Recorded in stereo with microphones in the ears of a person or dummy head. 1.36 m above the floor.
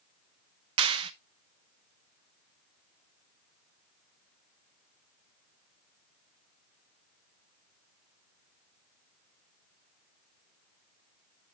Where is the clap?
30° right (ahead or behind), 0.6 m.